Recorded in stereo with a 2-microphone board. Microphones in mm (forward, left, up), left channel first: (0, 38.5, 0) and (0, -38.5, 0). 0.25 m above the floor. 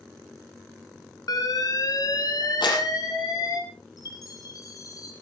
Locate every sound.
1.3 s an alarm: 55° left (ahead or behind), 3.5 m
2.6 s a clap: 85° left, 5.5 m
4.0 s a chime: 50° left (ahead or behind), 5 m